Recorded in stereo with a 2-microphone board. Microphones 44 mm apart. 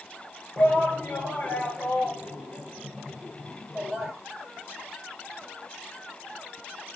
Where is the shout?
40° left (ahead or behind), 3 m; by 4.1 s 10° right (ahead or behind), 3 m.